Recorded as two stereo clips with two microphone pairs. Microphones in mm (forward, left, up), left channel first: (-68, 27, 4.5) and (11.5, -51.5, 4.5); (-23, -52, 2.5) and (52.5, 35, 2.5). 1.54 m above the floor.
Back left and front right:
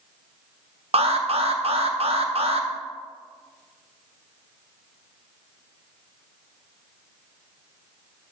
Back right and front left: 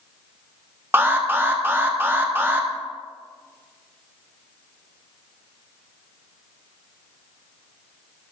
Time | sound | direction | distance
0.9 | an alarm | 20° right | 0.8 m